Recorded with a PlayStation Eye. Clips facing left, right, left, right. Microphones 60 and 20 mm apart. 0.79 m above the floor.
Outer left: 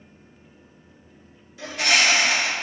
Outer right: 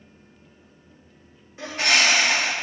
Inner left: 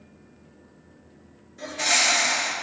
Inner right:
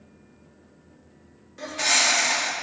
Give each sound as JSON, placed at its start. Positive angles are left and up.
{"t": 1.6, "sound": "a bird", "side_deg": -40, "distance_m": 1.6}